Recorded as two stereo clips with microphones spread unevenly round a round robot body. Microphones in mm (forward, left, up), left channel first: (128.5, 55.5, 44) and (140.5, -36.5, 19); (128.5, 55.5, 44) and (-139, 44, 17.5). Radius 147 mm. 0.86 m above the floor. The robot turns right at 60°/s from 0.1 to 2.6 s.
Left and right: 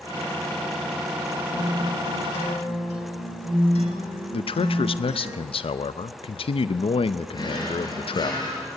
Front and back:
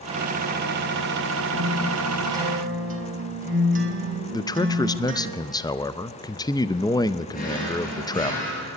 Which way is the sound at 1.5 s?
55° left.